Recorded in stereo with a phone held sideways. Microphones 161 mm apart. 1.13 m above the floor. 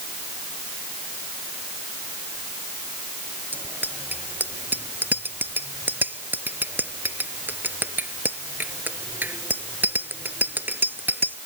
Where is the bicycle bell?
10° right (ahead or behind).